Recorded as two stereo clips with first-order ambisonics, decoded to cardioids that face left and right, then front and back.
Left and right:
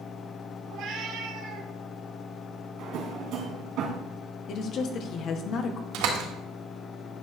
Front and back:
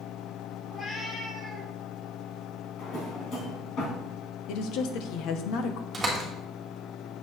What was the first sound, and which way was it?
A cat meowing, 65° right.